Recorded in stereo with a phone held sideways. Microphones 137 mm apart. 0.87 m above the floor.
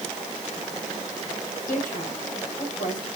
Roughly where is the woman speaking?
Left.